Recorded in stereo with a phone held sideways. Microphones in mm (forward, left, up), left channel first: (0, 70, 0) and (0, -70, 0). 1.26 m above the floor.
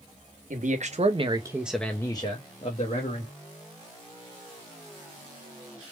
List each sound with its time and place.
0.5 s a man speaking: 65° right (ahead or behind), 0.8 m; by 3.3 s 60° left (ahead or behind), 1.1 m